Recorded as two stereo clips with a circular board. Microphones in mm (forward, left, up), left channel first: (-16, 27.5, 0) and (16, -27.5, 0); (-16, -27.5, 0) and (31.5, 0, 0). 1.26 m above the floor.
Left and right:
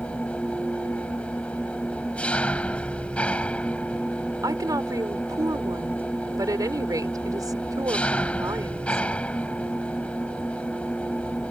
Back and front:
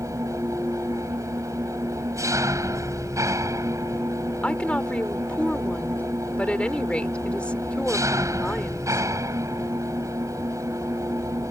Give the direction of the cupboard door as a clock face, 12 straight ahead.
No cupboard door in this recording.